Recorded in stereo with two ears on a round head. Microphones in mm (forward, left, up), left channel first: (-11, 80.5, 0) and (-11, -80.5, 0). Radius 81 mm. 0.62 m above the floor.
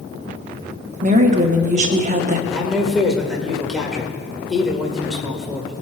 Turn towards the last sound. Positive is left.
turn(degrees=0)  # may be behind; listen again after turning